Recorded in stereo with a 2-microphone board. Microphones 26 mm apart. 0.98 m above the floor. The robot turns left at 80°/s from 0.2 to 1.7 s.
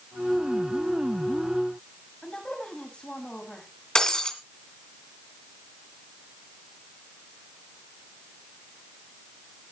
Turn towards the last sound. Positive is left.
turn(degrees=25)  # may be behind; listen again after turning